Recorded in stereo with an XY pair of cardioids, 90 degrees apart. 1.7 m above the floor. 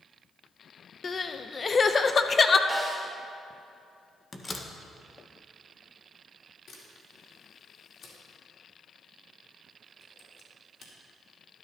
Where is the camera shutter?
60° left, 3.5 m.